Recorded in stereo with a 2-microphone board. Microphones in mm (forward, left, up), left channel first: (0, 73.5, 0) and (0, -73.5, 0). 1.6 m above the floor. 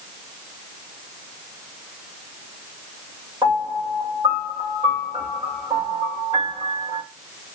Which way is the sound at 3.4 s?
40° right (ahead or behind).